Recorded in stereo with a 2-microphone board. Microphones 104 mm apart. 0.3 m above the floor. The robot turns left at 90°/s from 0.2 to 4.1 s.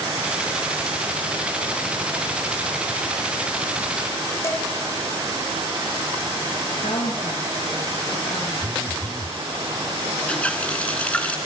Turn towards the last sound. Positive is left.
turn(degrees=15)  # may be behind; listen again after turning